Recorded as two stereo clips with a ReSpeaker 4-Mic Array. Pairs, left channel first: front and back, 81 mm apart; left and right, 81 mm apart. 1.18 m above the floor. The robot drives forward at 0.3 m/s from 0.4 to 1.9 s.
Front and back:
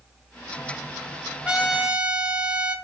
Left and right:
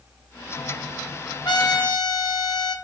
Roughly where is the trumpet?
Left.